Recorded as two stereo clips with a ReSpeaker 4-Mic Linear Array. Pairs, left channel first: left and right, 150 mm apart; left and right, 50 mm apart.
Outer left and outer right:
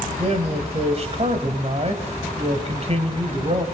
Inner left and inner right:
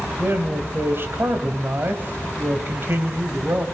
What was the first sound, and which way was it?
A man speaking, 45° right (ahead or behind).